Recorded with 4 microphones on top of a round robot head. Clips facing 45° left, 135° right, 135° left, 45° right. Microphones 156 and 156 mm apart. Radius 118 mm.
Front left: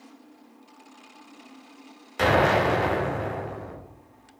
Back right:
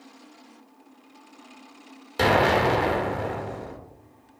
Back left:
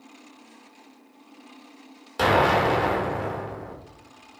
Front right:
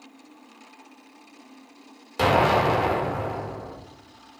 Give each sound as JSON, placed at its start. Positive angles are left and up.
{"t": 2.2, "sound": "an explosion", "azimuth_deg": -125, "distance_m": 1.2}